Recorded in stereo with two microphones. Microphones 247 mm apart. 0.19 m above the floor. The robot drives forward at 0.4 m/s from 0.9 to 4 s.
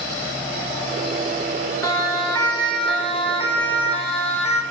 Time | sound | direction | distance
1.8 | a siren | 15° left (ahead or behind) | 8 m